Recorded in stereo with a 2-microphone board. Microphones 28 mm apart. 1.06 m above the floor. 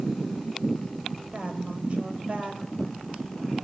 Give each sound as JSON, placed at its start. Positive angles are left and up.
{"t": 1.3, "sound": "a woman speaking", "side_deg": -45, "distance_m": 4.5}